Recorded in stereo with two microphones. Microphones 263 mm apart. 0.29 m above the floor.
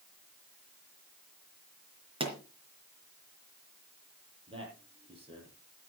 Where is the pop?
20° right (ahead or behind), 4 m.